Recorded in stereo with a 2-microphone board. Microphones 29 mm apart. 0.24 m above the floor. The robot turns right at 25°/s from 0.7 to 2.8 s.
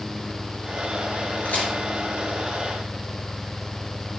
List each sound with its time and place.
1.4 s a crack: 70° left (ahead or behind), 2.5 m; by 1.7 s 65° left (ahead or behind), 2.5 m